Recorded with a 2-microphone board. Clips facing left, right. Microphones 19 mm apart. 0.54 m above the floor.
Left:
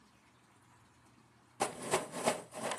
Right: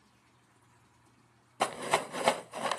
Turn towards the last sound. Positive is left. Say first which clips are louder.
# right 5 dB
turn(degrees=-60)  # may be behind; listen again after turning